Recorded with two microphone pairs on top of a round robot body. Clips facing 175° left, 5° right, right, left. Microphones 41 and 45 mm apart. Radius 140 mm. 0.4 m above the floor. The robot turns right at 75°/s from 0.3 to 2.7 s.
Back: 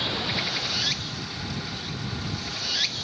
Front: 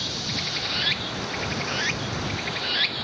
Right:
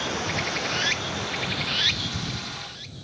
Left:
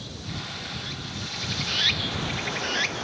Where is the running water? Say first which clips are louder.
Back 3 dB, right 10 dB; 115° right; by 3.0 s 65° left.